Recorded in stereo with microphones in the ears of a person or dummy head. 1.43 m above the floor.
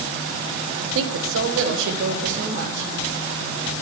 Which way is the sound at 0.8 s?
75° right (ahead or behind).